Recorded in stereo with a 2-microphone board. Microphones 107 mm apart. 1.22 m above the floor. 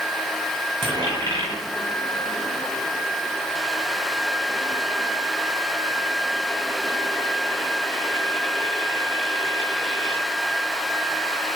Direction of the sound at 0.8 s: 45° right (ahead or behind).